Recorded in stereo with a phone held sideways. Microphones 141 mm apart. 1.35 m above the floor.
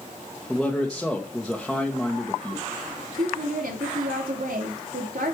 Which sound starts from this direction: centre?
A man speaking, at 0.5 s.